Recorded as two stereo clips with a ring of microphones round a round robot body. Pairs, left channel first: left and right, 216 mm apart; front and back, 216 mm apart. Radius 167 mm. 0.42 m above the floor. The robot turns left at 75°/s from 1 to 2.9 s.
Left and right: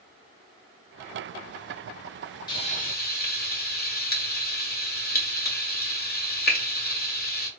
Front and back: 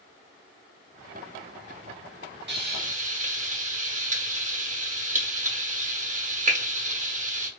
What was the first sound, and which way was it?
Frying, 160° left.